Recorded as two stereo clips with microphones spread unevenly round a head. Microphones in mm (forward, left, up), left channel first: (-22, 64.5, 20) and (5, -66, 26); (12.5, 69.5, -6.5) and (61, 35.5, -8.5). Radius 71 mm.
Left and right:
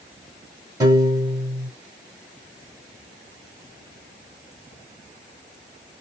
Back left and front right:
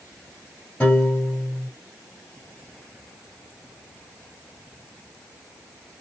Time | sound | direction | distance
0.8 | a piano | 140° right | 1.8 m